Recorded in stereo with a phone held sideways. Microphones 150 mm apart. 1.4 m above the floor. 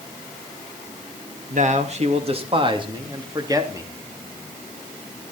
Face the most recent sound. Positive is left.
turn(degrees=-20)  # may be behind; listen again after turning